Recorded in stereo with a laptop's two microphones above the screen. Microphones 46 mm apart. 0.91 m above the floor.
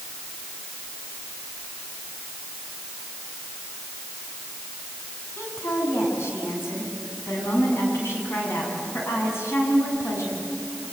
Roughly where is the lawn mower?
I don't hear a lawn mower.